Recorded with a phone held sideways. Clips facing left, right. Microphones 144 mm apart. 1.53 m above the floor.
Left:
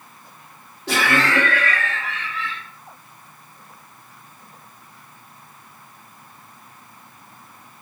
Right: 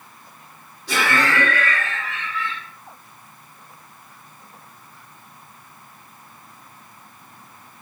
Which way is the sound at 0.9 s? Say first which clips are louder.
Left 1 dB; 60° left (ahead or behind).